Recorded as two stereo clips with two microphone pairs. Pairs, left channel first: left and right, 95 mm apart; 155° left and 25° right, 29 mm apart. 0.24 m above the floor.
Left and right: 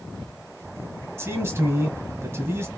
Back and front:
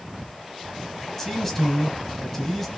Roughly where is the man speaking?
Behind right.